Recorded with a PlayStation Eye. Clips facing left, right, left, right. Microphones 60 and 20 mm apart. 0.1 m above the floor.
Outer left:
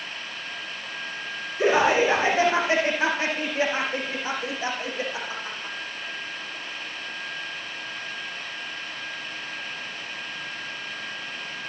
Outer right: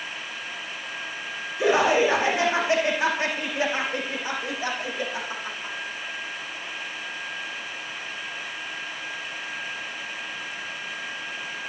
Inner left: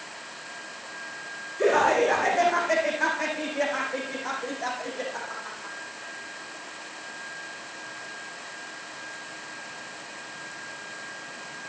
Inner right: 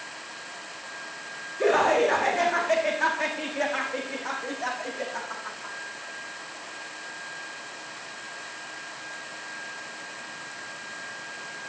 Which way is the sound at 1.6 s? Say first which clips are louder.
Even, even; 30° left (ahead or behind).